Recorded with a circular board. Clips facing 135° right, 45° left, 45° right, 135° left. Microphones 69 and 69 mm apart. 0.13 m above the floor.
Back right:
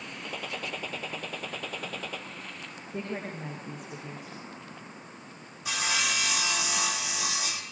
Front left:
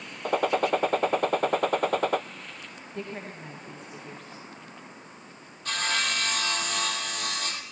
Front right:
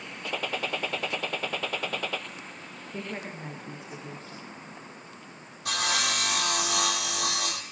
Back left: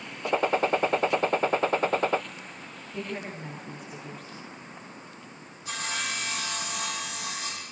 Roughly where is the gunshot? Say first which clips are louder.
Front left 14 dB, back left 8 dB; left.